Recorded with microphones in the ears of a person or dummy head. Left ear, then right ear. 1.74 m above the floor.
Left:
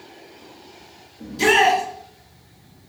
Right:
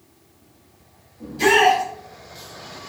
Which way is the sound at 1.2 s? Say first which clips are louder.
Right 1 dB; 25° left (ahead or behind).